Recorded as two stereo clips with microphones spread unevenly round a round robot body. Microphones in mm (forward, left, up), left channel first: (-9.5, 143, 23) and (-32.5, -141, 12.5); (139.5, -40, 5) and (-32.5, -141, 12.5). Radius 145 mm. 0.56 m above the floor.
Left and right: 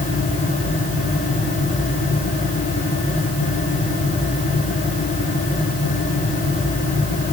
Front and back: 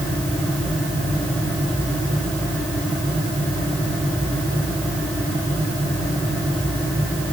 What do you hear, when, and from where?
Only background noise.